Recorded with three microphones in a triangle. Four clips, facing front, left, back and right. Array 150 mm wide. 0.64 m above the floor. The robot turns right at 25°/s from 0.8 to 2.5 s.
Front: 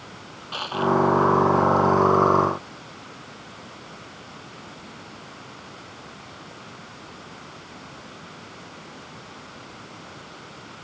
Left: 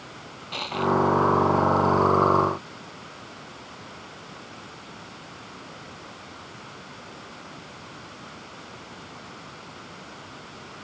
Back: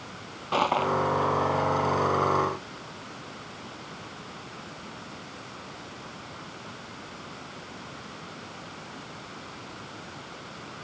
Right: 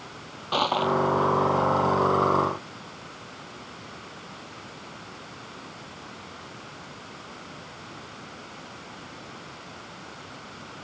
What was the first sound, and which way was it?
Crushing, 135° right.